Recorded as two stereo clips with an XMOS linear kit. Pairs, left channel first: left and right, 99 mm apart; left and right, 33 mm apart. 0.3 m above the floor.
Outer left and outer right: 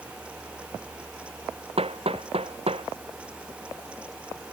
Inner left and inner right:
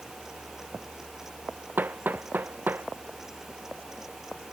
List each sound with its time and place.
1.8 s hammering: 70° right (ahead or behind)